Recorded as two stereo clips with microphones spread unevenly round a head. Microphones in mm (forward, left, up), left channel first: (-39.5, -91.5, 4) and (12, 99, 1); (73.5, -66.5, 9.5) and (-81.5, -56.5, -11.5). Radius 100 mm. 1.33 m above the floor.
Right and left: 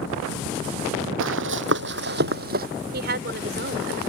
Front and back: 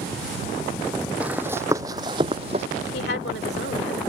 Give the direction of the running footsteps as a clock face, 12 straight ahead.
9 o'clock.